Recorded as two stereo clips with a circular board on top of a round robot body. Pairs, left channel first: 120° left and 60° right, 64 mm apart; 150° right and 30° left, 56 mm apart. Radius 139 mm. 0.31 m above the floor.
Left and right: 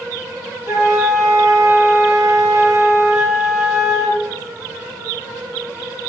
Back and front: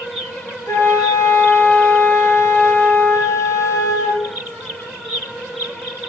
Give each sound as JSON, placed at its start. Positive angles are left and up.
{"t": 0.7, "sound": "a flute", "azimuth_deg": -105, "distance_m": 6.0}